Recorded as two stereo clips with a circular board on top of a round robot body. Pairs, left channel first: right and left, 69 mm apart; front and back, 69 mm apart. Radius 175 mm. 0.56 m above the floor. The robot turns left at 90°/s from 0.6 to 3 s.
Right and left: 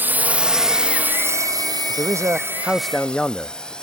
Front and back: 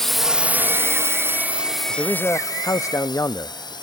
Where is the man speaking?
85° left; by 3.7 s 15° right.